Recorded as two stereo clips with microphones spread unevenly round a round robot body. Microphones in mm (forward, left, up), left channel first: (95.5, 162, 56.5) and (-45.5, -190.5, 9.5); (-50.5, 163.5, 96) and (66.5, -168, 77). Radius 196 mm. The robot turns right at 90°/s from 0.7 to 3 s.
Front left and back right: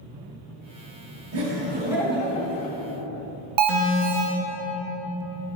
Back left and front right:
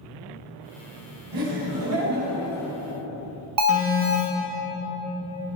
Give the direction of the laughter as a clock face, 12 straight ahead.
3 o'clock.